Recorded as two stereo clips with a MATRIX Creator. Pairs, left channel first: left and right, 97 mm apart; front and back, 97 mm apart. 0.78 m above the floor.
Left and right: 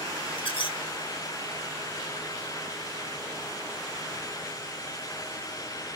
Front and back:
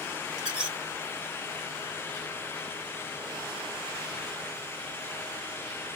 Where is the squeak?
100° left, 1.6 m.